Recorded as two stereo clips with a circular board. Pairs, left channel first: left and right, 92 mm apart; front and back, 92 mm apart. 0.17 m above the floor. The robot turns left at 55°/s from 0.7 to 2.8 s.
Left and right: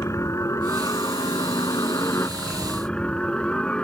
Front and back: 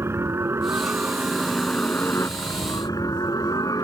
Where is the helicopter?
130° left; by 3.8 s 15° left.